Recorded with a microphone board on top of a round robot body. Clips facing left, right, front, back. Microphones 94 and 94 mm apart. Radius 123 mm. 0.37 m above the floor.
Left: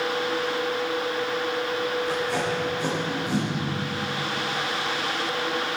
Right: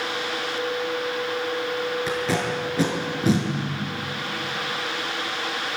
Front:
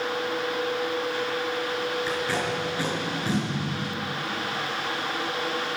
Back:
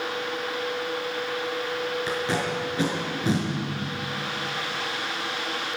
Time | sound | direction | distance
2.1 | tape being pulled | 110° right | 5 m